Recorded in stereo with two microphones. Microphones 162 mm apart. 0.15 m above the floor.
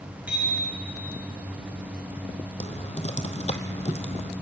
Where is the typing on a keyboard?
40° left (ahead or behind), 1.5 m.